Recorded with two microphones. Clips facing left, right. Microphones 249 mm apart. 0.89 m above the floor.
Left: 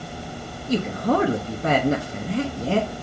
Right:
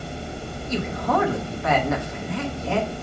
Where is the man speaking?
35° left (ahead or behind), 1.3 m.